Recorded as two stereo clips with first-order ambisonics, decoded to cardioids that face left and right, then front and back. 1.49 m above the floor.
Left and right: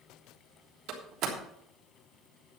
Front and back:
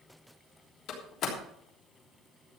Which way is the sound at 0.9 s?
45° right.